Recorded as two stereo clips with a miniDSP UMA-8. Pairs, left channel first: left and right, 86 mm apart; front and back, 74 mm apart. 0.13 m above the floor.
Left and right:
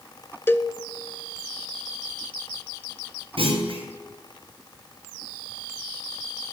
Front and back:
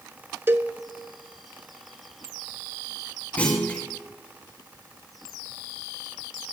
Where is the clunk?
70° right, 5.5 m.